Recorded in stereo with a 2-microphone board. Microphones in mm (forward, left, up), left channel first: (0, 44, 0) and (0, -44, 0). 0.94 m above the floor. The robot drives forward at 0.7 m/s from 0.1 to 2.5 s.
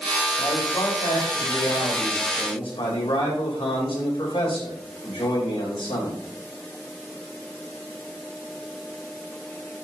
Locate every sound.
0.4 s a man speaking: 65° left (ahead or behind), 3.5 m; by 6.2 s 85° left, 3.5 m